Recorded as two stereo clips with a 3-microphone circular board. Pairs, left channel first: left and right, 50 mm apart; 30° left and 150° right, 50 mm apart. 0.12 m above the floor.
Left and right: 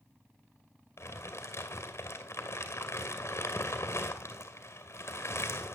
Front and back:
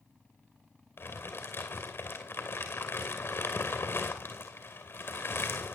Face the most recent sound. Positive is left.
turn(degrees=65)